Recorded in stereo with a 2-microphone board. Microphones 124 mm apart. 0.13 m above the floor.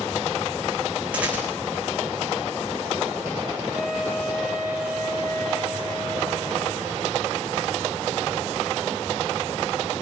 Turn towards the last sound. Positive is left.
turn(degrees=0)  # may be behind; listen again after turning